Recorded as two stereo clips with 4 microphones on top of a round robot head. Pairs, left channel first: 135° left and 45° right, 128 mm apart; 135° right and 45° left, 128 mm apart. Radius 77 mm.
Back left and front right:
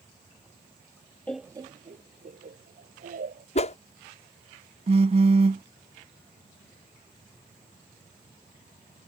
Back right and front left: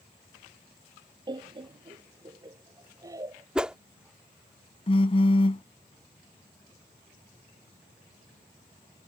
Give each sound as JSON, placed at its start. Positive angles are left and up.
{"t": 1.3, "sound": "laughter", "azimuth_deg": 65}
{"t": 3.5, "sound": "a whoosh", "azimuth_deg": 125}
{"t": 4.9, "sound": "a phone buzzing", "azimuth_deg": -90}